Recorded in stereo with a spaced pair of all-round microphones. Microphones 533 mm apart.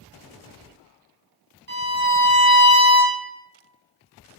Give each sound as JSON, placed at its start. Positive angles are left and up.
{"t": 1.7, "sound": "a violin", "side_deg": -80, "distance_m": 0.7}